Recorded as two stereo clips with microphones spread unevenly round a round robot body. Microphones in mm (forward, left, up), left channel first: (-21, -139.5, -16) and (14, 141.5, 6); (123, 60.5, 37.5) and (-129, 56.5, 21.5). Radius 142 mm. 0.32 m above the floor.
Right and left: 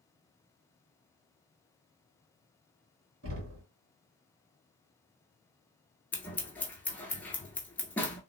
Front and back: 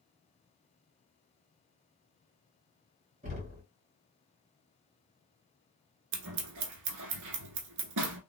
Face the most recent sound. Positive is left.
turn(degrees=180)